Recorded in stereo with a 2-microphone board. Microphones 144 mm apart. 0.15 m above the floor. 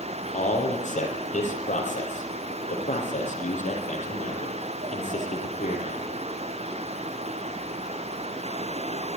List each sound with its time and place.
0.3 s a man speaking: 60° left (ahead or behind), 5.5 m